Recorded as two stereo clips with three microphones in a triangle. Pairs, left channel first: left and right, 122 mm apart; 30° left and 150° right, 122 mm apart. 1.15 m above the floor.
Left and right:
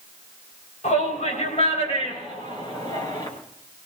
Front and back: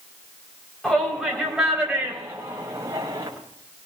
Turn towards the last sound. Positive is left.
turn(degrees=145)